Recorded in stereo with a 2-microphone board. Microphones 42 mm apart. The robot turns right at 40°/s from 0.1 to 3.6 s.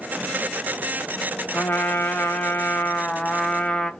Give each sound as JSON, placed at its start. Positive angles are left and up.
{"t": 1.5, "sound": "a trumpet", "azimuth_deg": 70, "distance_m": 0.7}